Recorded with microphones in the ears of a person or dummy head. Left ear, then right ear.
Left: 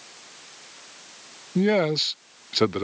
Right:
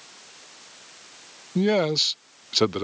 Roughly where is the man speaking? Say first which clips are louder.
Even; centre.